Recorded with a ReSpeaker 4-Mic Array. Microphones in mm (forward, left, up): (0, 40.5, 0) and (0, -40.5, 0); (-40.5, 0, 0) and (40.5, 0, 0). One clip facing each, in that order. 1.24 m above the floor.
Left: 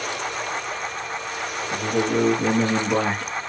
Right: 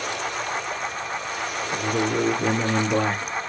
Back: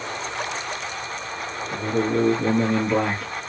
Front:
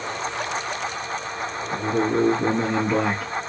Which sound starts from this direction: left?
A man speaking, at 1.7 s.